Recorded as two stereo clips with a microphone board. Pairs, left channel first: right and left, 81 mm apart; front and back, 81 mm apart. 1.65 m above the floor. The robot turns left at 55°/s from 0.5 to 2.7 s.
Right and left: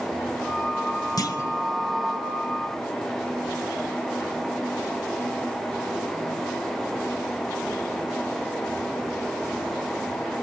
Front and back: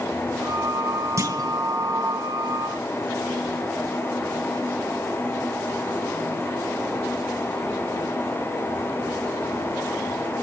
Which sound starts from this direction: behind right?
A clunk, at 1.2 s.